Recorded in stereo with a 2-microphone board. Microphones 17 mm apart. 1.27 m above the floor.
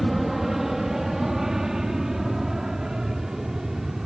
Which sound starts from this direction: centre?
An aircraft, at 0.0 s.